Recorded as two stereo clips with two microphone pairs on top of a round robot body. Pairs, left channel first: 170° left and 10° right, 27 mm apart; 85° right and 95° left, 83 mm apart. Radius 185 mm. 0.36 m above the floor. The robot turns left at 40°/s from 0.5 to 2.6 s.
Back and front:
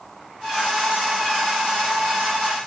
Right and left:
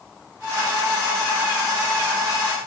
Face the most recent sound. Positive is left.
No sound to turn to.